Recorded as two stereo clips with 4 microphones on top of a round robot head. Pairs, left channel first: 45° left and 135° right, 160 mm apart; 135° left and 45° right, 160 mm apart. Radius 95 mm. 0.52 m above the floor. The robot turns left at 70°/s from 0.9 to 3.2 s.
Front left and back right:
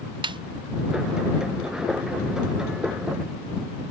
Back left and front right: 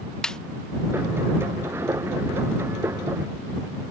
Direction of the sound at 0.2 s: 145° right.